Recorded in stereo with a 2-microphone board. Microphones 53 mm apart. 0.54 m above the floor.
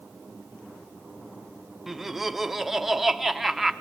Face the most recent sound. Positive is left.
turn(degrees=-5)  # may be behind; listen again after turning